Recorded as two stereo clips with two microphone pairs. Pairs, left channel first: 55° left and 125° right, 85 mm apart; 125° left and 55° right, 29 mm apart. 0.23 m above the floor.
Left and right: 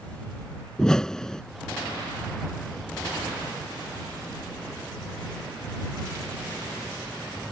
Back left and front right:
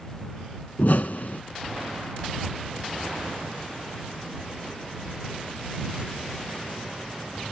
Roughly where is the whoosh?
Behind left.